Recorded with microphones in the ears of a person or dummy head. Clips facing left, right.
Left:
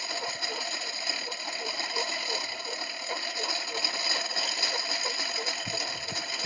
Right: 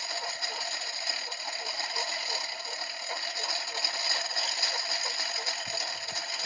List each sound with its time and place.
0.0 s a lawn mower: 60° left (ahead or behind)